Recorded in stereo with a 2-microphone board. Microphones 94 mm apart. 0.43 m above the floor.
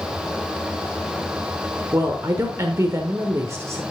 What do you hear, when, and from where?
1.9 s a woman speaking: 35° right (ahead or behind), 1.1 m